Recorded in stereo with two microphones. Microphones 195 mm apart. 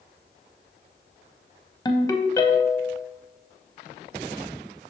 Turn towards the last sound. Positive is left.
turn(degrees=20)  # may be behind; listen again after turning